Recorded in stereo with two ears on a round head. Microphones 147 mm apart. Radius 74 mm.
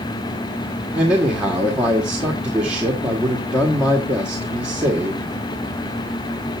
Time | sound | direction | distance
0.9 | a man speaking | 10° right (ahead or behind) | 1.5 m